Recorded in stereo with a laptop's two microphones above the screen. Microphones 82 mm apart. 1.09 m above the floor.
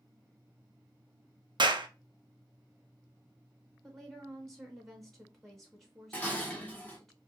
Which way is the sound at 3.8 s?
5° left (ahead or behind).